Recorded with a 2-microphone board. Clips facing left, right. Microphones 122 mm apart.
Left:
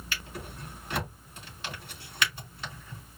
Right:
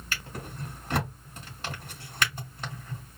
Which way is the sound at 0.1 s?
45° right (ahead or behind).